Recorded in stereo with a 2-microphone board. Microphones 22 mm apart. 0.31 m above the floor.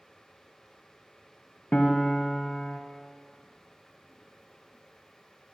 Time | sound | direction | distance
1.7 | a piano | 60° left (ahead or behind) | 0.6 m